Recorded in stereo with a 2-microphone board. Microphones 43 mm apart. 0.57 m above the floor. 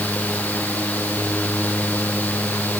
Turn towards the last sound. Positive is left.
No sound to turn to.